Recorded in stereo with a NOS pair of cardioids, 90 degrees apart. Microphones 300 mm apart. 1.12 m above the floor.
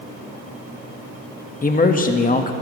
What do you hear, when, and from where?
1.6 s a man speaking: 30° left, 1.5 m